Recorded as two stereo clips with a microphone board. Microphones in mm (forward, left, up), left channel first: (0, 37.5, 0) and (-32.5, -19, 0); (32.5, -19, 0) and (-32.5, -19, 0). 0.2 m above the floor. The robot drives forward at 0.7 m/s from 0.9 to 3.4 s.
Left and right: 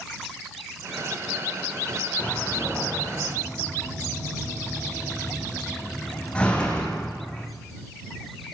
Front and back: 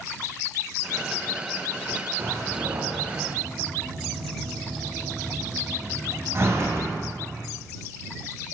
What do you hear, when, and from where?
2.2 s a door slam: 130° left, 9.5 m; by 7.4 s 135° left, 10 m